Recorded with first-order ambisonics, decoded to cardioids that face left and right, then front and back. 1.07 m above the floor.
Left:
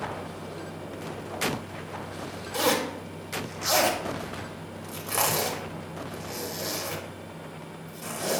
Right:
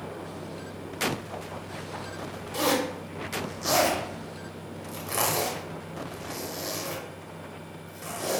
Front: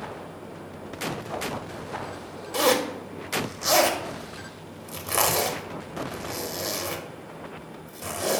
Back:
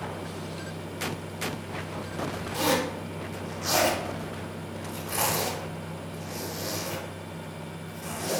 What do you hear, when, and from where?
2.5 s a zipper: 5° left, 0.7 m